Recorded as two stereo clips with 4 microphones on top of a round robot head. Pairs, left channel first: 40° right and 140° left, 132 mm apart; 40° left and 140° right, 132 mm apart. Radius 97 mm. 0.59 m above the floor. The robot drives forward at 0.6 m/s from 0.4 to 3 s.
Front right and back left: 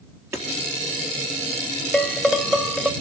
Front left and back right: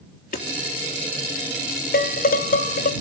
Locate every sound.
0.3 s hammering: 65° left, 4.5 m
1.9 s dishes clattering: 45° left, 1.8 m; by 2.9 s 60° left, 1.5 m